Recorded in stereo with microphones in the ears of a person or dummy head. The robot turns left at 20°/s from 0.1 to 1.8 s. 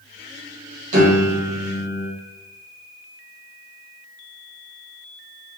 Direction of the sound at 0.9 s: 45° right (ahead or behind).